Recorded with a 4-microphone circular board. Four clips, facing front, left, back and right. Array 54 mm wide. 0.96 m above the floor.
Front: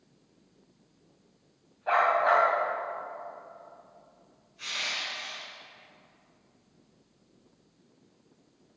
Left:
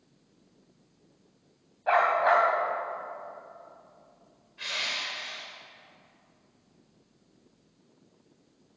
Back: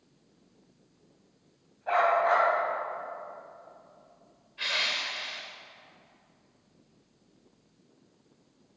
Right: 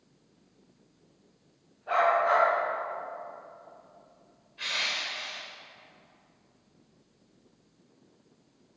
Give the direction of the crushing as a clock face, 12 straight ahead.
6 o'clock.